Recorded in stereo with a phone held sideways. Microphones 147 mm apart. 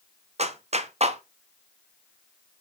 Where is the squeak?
I don't hear a squeak.